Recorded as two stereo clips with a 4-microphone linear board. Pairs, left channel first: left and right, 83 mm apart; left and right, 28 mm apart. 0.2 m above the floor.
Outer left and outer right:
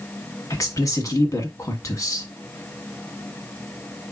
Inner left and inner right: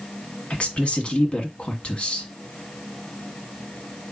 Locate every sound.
0.5 s a woman speaking: 45° left (ahead or behind), 1.5 m